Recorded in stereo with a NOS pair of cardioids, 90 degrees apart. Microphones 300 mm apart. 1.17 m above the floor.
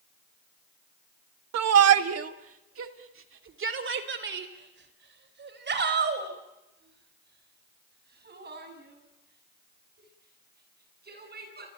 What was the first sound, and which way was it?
A shout, 65° right.